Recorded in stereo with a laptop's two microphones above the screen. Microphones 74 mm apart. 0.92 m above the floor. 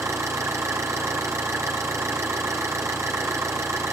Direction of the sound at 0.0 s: 40° right (ahead or behind).